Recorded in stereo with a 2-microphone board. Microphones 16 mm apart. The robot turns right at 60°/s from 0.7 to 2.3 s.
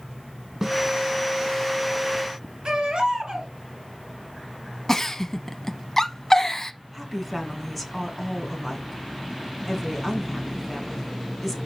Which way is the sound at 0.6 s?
15° right (ahead or behind).